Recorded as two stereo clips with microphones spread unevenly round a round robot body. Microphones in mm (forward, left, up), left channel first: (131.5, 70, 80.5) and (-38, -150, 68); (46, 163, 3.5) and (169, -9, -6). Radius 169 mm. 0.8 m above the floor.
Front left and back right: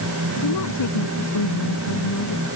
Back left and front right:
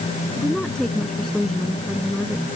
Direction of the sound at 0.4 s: 40° left.